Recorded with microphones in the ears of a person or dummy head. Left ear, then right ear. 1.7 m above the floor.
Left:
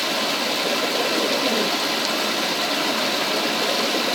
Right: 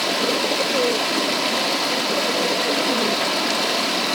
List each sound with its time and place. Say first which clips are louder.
0.0 s running water: right 2 dB; centre (ahead or behind), 3.5 m